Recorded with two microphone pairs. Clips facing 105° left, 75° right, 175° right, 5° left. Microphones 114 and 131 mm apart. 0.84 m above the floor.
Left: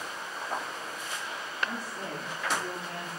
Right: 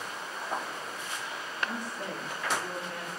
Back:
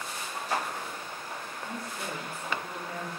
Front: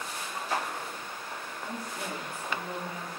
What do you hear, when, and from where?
1.6 s a woman speaking: 50° left, 2.5 m; by 3.1 s 80° left, 2.5 m